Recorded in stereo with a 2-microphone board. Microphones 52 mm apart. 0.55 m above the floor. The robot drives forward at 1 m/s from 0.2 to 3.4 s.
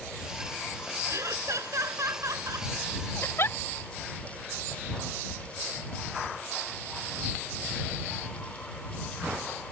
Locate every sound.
1.1 s laughter: 70° right (ahead or behind); by 2.7 s 85° right
3.2 s a giggle: 50° left (ahead or behind); by 3.6 s 55° left (ahead or behind)